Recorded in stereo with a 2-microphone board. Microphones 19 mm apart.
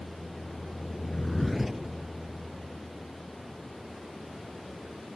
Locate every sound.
0.0 s a vehicle: 15° left (ahead or behind); by 5.2 s 15° right (ahead or behind)